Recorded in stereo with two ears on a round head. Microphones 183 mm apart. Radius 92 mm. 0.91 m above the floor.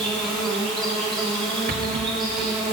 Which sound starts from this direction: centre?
An insect, at 0.0 s.